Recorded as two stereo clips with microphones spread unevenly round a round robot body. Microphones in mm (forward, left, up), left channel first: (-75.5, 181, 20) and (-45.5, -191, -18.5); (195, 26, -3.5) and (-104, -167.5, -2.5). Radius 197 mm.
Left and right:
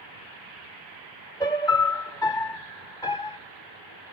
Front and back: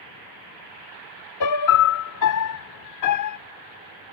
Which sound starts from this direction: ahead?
A piano, at 1.4 s.